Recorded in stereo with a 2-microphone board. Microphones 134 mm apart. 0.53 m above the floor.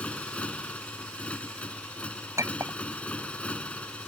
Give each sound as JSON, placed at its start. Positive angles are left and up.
{"t": 0.0, "sound": "a motorcycle", "side_deg": 10}
{"t": 2.4, "sound": "a clink", "side_deg": -25}